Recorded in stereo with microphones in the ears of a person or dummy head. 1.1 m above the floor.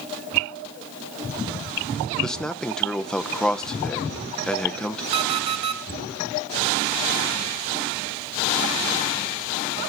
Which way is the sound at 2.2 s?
Centre (ahead or behind).